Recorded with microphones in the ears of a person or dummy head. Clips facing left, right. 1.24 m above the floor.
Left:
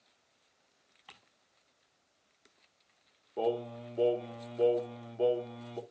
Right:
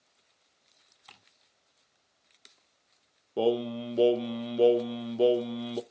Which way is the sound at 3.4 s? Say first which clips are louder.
Right 6 dB; 40° right (ahead or behind).